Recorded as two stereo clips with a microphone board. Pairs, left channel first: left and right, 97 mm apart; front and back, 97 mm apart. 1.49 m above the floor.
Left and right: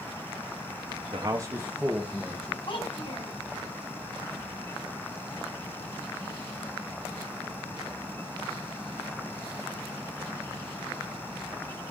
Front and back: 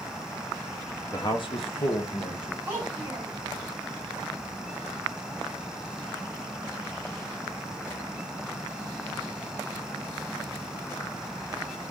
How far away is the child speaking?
About 3.5 m.